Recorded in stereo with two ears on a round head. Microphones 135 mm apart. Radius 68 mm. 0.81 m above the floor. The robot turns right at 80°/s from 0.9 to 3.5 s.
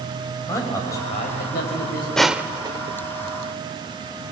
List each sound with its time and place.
0.5 s a man speaking: 20° left, 5 m; by 2.1 s 110° left, 5 m
2.2 s crushing: 5° left (ahead or behind), 0.7 m; by 3.0 s 45° right (ahead or behind), 0.7 m